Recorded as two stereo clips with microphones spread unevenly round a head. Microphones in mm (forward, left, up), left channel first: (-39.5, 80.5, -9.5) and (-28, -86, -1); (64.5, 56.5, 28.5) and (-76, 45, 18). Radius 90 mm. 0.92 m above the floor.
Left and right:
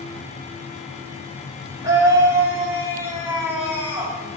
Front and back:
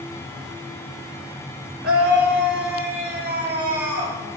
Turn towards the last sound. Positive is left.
turn(degrees=-165)